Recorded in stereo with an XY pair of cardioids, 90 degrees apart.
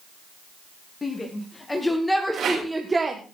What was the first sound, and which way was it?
A shout, 30° left.